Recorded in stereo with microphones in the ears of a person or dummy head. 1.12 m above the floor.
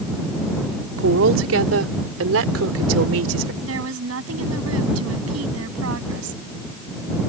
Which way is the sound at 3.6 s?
75° right (ahead or behind).